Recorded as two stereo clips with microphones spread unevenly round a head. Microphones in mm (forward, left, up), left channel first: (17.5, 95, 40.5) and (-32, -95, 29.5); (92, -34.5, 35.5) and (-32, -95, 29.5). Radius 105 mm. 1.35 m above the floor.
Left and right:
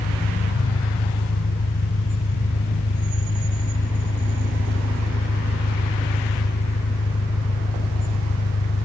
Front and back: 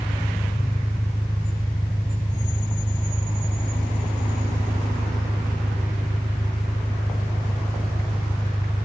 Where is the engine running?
115° left.